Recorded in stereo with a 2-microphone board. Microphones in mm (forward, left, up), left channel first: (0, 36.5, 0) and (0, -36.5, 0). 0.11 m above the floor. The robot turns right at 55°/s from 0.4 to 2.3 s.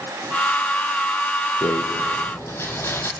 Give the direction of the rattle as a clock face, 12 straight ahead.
8 o'clock.